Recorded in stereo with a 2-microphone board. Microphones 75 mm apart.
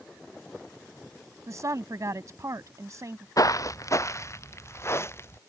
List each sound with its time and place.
1.5 s a woman speaking: 50° right (ahead or behind)
3.4 s footsteps: 55° left (ahead or behind); by 5.4 s 35° left (ahead or behind)